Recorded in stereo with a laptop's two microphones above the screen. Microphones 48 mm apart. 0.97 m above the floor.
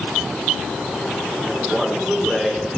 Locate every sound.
1.4 s a man speaking: 5° right (ahead or behind), 3 m